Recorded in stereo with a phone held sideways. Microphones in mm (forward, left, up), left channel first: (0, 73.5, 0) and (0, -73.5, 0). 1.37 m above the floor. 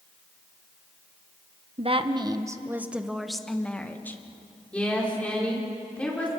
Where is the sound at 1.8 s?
45° right (ahead or behind), 1.1 m; by 4.2 s 15° left (ahead or behind), 1.9 m.